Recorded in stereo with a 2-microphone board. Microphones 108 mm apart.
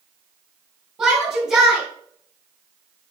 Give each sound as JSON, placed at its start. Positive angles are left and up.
{"t": 1.0, "sound": "a shout", "side_deg": -5, "distance_m": 4.0}